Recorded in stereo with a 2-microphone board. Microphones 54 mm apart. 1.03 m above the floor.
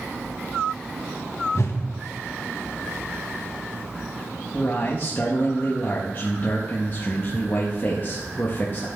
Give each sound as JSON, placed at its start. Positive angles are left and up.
{"t": 1.6, "sound": "a whoosh", "side_deg": 60, "distance_m": 1.3}
{"t": 4.5, "sound": "a man speaking", "side_deg": 35, "distance_m": 1.4}